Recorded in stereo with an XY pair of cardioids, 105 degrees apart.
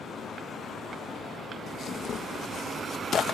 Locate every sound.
1.7 s tearing paper: 50° left